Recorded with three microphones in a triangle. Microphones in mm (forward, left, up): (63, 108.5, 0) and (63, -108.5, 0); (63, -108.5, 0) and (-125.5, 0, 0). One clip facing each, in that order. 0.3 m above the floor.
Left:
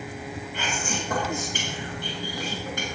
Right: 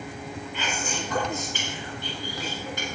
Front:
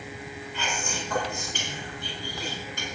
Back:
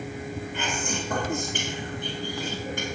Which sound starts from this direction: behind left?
Whispering, at 0.5 s.